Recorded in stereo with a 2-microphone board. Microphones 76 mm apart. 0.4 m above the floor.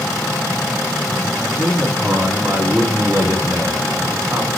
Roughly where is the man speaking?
Right.